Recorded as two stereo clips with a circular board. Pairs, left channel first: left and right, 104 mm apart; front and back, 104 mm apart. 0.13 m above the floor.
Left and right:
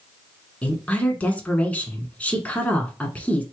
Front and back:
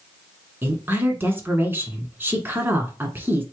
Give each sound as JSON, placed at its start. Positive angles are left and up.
{"t": 0.6, "sound": "a woman speaking", "azimuth_deg": 145, "distance_m": 1.2}